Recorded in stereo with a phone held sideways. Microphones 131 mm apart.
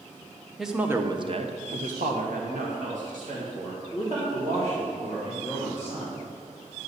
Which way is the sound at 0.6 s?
Centre (ahead or behind).